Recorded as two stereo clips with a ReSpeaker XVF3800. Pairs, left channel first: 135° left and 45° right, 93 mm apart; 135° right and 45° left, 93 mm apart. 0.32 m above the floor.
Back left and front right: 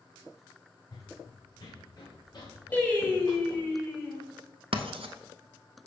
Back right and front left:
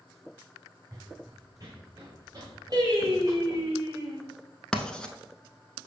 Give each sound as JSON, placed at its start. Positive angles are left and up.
{"t": 0.9, "sound": "running footsteps", "azimuth_deg": 100, "distance_m": 0.8}
{"t": 2.7, "sound": "singing", "azimuth_deg": 70, "distance_m": 1.7}
{"t": 4.7, "sound": "writing", "azimuth_deg": -55, "distance_m": 0.6}